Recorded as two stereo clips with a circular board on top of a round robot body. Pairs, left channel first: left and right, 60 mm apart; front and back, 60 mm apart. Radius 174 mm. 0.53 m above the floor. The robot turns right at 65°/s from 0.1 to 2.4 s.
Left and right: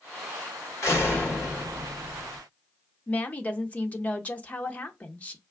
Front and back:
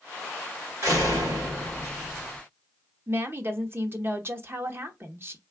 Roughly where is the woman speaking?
Behind left.